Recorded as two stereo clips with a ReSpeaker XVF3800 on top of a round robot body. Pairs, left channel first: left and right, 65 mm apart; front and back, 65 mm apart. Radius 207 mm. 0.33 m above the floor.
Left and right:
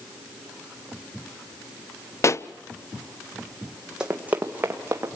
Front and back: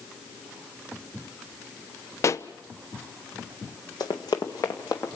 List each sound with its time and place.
2.2 s a pop: 45° left, 0.6 m
4.0 s running footsteps: 10° right, 1.7 m; by 5.1 s 35° right, 2.5 m